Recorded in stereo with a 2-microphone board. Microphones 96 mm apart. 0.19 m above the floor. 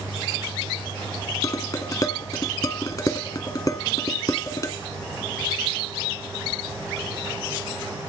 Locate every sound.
1.4 s dishes clattering: 40° left (ahead or behind), 1.1 m